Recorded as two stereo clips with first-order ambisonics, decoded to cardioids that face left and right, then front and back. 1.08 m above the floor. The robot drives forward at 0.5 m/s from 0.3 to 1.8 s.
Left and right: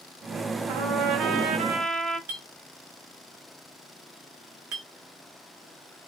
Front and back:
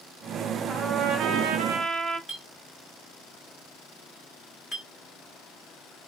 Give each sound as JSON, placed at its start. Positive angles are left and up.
{"t": 0.7, "sound": "a trumpet", "azimuth_deg": -110, "distance_m": 0.6}
{"t": 2.3, "sound": "a clink", "azimuth_deg": -100, "distance_m": 1.7}